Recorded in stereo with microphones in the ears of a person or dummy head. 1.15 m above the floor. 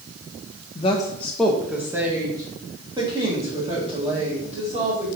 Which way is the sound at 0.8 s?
30° left (ahead or behind).